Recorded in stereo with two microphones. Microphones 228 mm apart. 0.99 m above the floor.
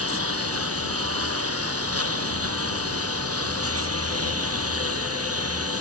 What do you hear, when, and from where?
0.0 s a lawn mower: 70° right (ahead or behind); by 5.8 s 75° right (ahead or behind)